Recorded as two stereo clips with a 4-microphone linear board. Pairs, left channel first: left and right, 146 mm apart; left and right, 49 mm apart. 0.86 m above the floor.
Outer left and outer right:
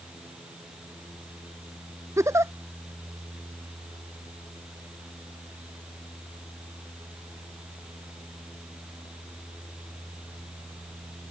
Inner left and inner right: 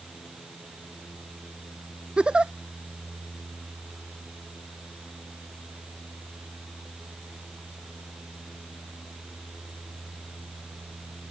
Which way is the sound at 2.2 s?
20° right (ahead or behind).